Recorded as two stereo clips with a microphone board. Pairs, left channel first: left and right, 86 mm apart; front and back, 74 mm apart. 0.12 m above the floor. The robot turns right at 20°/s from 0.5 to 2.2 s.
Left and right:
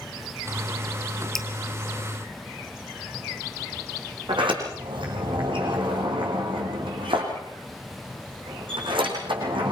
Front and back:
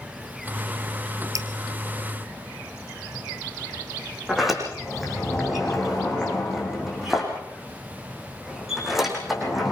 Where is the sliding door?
95° right, 6.5 m.